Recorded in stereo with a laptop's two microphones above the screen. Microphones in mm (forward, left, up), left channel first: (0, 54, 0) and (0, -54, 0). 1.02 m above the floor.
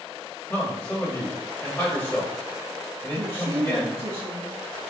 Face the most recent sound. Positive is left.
turn(degrees=-60)  # may be behind; listen again after turning